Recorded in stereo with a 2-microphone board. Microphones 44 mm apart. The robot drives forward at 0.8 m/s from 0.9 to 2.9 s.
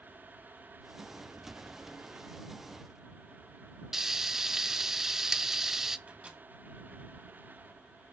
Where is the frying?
10° right (ahead or behind), 0.6 m.